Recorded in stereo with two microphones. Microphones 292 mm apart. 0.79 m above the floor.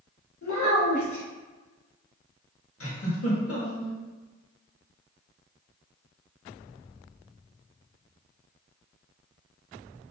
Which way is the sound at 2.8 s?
55° left (ahead or behind).